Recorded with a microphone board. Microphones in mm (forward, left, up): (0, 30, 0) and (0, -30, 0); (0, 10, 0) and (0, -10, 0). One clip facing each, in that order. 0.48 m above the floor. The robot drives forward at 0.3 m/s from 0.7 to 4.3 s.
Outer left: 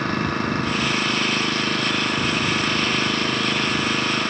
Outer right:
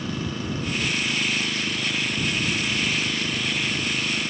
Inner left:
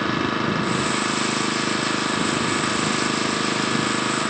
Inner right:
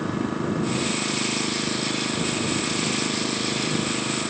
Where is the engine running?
60° left (ahead or behind).